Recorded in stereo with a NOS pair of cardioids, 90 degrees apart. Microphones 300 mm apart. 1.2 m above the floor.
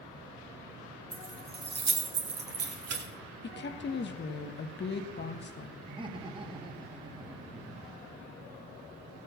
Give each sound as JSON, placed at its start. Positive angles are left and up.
{"t": 1.1, "sound": "keys jangling", "azimuth_deg": -25, "distance_m": 2.0}
{"t": 3.4, "sound": "a woman speaking", "azimuth_deg": 35, "distance_m": 1.4}
{"t": 5.9, "sound": "laughter", "azimuth_deg": -15, "distance_m": 2.0}